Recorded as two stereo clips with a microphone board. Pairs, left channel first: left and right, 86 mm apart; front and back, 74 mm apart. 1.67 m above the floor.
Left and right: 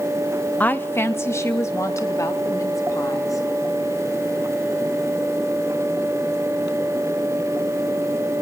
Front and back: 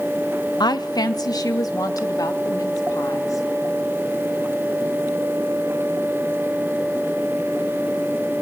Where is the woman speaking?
20° left, 1.3 m; by 3.4 s 40° left, 5.5 m.